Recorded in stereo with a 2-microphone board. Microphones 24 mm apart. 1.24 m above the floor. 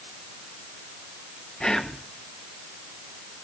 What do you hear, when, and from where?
1.6 s whispering: 35° left (ahead or behind), 0.6 m